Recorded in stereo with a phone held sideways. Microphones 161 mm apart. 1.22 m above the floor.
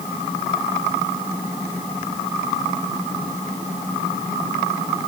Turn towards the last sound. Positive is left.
No sound to turn to.